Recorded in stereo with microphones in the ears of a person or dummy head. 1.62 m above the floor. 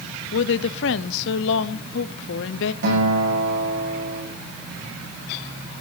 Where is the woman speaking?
65° left (ahead or behind), 0.8 m.